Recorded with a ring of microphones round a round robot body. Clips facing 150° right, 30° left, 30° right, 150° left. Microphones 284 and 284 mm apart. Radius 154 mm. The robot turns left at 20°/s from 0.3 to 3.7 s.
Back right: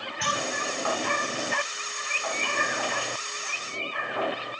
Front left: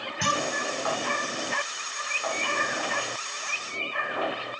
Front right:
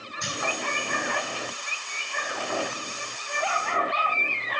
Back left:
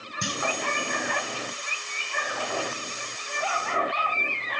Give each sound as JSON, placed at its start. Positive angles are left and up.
{"t": 0.2, "sound": "a clunk", "azimuth_deg": 95, "distance_m": 6.5}